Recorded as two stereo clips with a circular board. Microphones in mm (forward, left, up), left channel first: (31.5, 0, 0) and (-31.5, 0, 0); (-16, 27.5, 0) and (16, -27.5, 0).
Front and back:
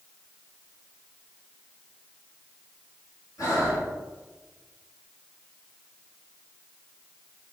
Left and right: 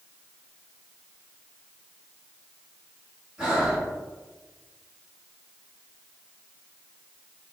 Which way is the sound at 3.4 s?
15° left.